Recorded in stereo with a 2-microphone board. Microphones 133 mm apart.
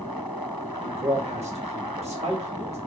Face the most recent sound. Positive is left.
turn(degrees=-55)  # may be behind; listen again after turning